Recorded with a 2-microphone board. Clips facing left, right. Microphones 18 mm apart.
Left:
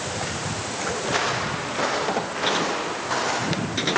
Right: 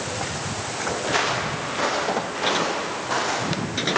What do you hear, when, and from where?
1.0 s footsteps: 10° right (ahead or behind), 5.5 m; by 4.0 s centre (ahead or behind), 8.5 m